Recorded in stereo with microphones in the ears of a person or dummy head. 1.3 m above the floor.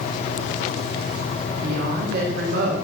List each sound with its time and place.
1.6 s a woman speaking: 50° right (ahead or behind), 2.5 m